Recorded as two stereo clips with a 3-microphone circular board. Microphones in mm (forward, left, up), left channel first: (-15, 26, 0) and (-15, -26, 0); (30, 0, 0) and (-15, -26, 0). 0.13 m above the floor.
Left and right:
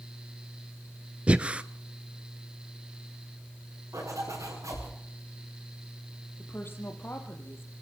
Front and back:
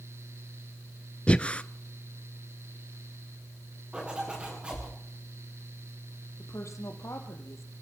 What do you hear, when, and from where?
1.3 s breathing: 30° right, 0.7 m
3.9 s a zipper: 75° right, 7 m
6.4 s a woman speaking: 45° left, 3.5 m